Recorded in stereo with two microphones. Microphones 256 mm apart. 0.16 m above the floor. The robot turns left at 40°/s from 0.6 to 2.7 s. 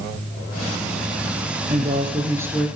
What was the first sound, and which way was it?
A woman speaking, 140° right.